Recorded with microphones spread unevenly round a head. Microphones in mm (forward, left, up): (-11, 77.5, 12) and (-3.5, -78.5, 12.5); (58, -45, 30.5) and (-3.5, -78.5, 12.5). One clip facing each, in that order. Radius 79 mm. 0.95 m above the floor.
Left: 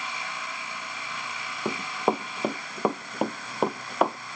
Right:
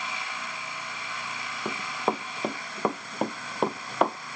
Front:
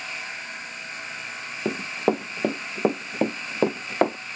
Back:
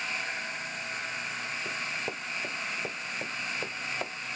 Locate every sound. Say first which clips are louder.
1.6 s running footsteps: left 3 dB, front 16 dB; 15° left; by 4.2 s 5° left